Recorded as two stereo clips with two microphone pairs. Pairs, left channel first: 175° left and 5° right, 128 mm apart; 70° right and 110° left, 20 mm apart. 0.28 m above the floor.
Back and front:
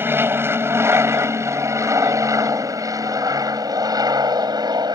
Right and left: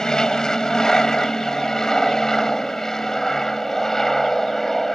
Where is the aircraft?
60° right; by 5.0 s 5° right.